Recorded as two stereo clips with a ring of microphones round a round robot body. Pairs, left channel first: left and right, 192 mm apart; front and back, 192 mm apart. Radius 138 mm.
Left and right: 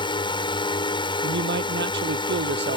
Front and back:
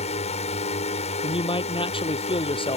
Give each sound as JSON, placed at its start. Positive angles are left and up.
{"t": 0.0, "sound": "a drone", "azimuth_deg": 40}
{"t": 1.2, "sound": "a man speaking", "azimuth_deg": -65}